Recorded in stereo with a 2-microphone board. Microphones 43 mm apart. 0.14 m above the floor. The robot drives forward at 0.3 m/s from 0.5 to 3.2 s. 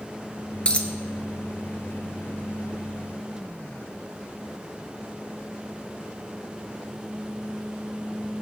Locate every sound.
0.7 s a dropped coin: 25° left (ahead or behind), 0.6 m; by 0.9 s 30° left (ahead or behind), 0.6 m